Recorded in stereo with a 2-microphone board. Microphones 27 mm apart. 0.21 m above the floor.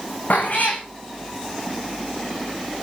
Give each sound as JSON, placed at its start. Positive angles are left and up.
{"t": 0.3, "sound": "a cat meowing", "side_deg": 80, "distance_m": 3.0}